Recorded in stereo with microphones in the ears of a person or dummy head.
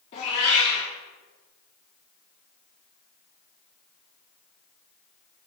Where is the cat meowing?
20° left (ahead or behind), 0.6 m.